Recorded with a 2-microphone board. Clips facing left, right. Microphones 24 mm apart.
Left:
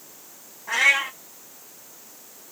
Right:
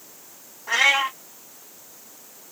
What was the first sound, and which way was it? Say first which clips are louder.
A cat meowing: right 1 dB; 35° right (ahead or behind).